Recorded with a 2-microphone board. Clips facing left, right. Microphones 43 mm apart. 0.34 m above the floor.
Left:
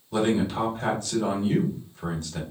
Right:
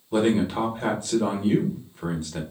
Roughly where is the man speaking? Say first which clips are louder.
Right 2 dB; centre.